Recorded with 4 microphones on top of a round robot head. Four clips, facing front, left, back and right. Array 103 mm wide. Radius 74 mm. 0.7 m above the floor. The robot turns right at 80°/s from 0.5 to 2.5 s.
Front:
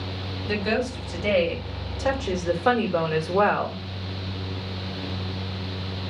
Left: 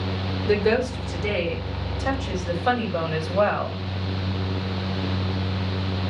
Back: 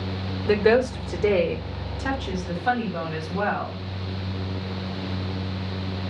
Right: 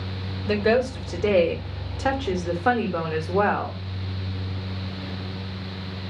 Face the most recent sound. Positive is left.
turn(degrees=-45)